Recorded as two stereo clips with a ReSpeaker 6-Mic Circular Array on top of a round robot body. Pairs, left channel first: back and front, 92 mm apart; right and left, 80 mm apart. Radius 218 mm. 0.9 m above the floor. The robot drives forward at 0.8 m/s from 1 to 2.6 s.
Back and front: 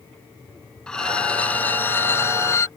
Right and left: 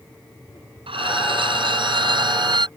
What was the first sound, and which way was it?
A violin, 95° left.